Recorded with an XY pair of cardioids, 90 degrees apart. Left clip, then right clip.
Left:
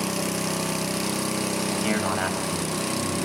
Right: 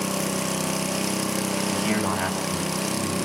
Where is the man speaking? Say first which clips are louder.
Even; 25° left, 9.5 m.